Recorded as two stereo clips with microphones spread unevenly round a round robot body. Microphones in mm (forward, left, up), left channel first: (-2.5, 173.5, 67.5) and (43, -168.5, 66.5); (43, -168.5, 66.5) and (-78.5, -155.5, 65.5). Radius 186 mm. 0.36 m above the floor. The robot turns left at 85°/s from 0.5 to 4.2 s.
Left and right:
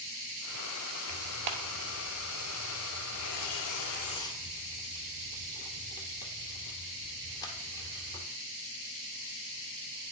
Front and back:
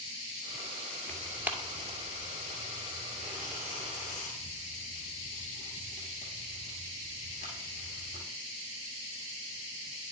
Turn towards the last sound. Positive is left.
turn(degrees=20)